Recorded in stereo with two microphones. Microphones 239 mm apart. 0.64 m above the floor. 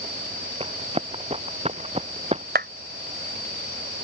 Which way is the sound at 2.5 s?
45° right (ahead or behind).